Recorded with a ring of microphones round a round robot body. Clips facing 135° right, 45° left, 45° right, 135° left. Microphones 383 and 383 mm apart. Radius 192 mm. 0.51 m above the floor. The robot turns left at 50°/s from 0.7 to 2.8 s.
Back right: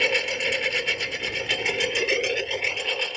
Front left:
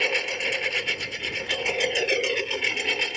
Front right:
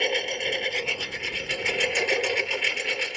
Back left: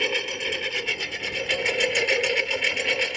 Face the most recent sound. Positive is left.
turn(degrees=105)